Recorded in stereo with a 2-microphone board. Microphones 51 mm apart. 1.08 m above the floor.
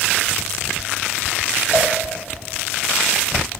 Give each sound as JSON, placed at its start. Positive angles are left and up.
{"t": 1.7, "sound": "a cowbell", "side_deg": -35, "distance_m": 1.7}